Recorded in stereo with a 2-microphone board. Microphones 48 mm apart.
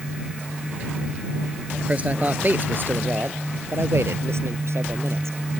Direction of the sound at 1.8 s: 30° right (ahead or behind).